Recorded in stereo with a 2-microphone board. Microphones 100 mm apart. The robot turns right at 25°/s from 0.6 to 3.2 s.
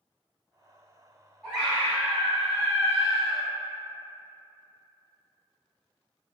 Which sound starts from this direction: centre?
A scream, at 1.4 s.